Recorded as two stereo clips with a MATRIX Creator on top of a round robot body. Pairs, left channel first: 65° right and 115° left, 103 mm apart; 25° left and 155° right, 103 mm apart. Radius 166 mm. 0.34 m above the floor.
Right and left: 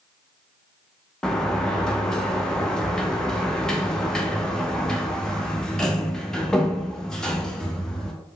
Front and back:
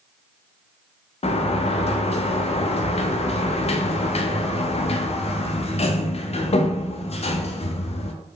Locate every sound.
1.2 s a sliding door: 15° left, 0.6 m